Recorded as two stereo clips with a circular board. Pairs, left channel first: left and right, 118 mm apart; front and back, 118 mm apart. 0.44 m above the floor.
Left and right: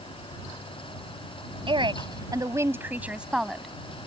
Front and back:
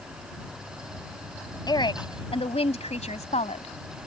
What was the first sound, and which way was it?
A woman speaking, 50° right.